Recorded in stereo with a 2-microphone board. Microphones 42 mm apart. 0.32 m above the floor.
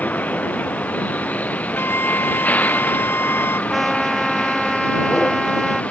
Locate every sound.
0.0 s a vehicle: 40° left (ahead or behind); by 5.9 s 35° left (ahead or behind)
1.8 s a flute: 70° left (ahead or behind)
3.7 s a trumpet: centre (ahead or behind)